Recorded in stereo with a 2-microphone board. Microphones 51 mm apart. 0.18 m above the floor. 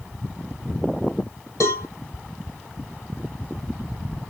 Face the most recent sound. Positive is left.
turn(degrees=85)